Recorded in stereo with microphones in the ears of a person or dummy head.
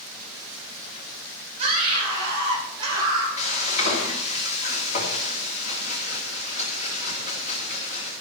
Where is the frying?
40° left (ahead or behind), 2.5 m.